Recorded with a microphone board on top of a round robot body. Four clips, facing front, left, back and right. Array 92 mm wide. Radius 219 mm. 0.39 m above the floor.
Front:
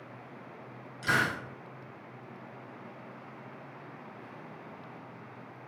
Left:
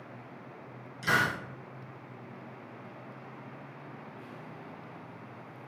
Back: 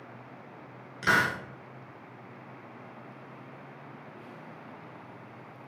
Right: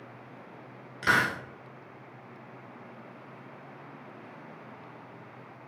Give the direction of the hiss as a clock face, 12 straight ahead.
4 o'clock.